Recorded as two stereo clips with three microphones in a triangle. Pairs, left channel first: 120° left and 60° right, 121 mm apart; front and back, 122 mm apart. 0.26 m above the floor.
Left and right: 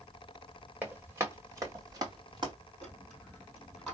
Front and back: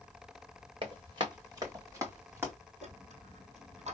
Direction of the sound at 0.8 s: 135° right.